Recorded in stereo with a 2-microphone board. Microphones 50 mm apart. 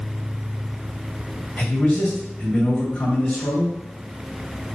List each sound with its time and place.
1.6 s a man speaking: 25° left (ahead or behind), 2 m